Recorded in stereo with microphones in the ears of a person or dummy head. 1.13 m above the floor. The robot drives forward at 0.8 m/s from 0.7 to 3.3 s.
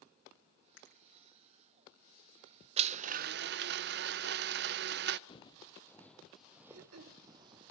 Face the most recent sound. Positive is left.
turn(degrees=-80)